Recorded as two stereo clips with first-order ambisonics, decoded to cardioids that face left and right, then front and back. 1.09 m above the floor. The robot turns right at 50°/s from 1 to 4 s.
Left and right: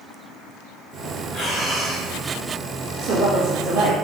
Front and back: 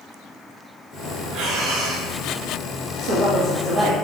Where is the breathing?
140° left, 0.9 m; by 2.1 s straight behind, 0.9 m.